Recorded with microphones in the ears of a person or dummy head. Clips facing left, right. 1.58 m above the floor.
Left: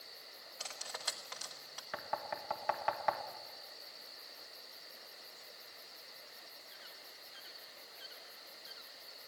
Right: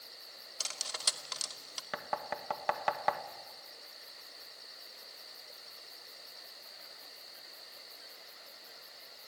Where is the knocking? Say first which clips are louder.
Right 3 dB; 55° right (ahead or behind), 1.6 m.